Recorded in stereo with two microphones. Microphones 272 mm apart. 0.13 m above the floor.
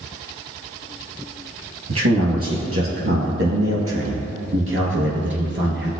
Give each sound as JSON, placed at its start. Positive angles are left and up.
{"t": 1.9, "sound": "a man speaking", "side_deg": -55, "distance_m": 3.0}